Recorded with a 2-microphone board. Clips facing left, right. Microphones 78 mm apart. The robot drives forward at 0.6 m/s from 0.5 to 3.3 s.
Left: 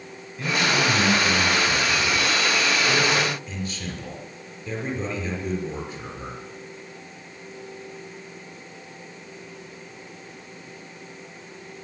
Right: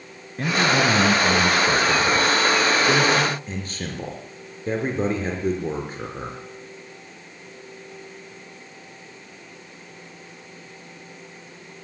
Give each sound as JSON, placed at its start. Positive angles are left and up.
{"t": 0.4, "sound": "a man speaking", "side_deg": -60, "distance_m": 4.5}